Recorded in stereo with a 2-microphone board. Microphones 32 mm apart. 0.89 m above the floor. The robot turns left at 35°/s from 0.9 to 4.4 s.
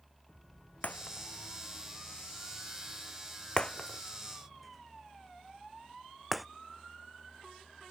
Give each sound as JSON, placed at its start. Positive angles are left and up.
{"t": 0.8, "sound": "breaking glass", "side_deg": 60}